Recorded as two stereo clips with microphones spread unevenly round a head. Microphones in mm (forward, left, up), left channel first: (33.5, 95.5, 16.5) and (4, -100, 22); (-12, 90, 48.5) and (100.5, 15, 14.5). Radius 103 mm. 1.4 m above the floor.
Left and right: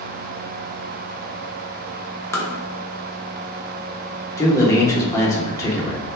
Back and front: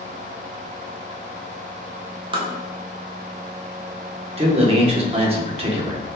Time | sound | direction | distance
2.3 | tapping | 15° left | 1.0 m
4.4 | a man speaking | 5° left | 1.4 m